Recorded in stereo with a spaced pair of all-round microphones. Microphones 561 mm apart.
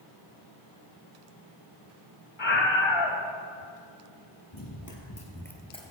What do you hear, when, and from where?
2.4 s a scream: 55° left (ahead or behind), 1.1 m
4.5 s running footsteps: 40° left (ahead or behind), 2.5 m; by 5.9 s 5° left (ahead or behind), 1.6 m